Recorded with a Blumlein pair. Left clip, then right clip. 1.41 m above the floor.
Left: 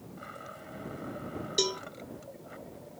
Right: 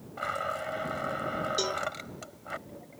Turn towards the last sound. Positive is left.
turn(degrees=15)